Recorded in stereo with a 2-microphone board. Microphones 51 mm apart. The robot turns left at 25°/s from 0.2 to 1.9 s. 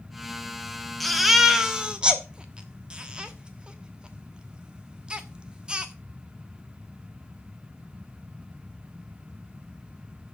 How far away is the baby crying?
About 1.3 m.